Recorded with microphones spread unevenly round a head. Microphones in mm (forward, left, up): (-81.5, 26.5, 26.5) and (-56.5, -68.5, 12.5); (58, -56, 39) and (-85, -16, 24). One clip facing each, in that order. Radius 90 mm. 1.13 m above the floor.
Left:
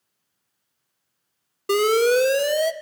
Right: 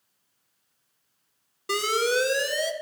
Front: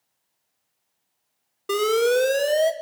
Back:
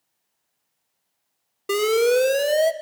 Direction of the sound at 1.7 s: 90° left.